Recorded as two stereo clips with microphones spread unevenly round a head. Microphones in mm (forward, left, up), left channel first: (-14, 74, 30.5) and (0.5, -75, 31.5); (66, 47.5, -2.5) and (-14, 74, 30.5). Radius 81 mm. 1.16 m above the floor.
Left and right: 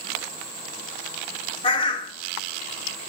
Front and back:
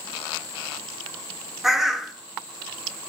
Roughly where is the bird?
Behind left.